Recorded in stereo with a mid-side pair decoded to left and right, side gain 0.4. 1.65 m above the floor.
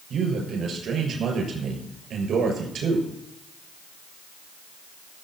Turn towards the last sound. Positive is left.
turn(degrees=-70)